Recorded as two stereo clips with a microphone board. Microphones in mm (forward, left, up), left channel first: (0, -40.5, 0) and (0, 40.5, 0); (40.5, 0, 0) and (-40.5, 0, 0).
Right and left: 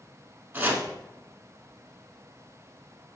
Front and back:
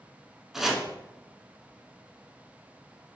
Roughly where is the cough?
No cough in this recording.